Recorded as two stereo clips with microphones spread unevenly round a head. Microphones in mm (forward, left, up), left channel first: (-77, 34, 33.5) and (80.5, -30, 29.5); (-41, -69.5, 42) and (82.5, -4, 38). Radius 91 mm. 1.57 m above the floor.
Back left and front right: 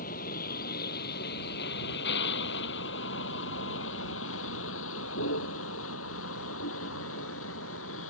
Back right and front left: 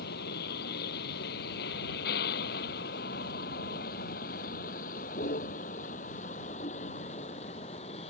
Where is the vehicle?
160° right; by 8.1 s 150° left.